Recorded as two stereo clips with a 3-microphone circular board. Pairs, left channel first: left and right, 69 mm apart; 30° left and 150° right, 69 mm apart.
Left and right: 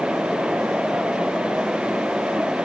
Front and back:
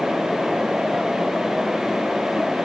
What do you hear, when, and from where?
Only background noise.